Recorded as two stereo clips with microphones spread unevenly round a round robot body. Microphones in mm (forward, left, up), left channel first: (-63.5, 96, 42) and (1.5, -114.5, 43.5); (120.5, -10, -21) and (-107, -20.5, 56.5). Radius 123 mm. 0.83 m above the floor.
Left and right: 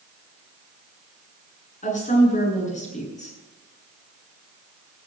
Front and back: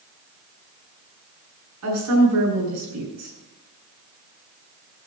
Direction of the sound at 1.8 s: 165° left.